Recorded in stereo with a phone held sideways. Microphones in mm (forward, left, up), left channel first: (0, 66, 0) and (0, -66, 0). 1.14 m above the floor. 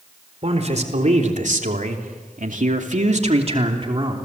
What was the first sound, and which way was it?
A man speaking, 55° right (ahead or behind).